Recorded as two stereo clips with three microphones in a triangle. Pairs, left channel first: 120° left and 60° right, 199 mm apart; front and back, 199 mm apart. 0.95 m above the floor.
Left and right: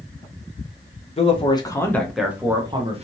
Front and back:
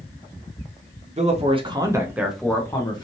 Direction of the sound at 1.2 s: 155° left.